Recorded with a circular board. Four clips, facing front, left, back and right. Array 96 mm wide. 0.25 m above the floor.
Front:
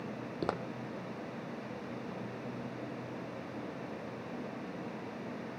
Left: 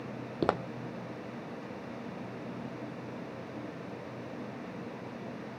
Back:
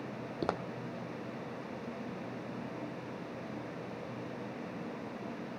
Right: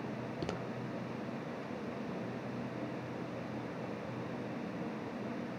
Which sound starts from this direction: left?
Footsteps, at 0.4 s.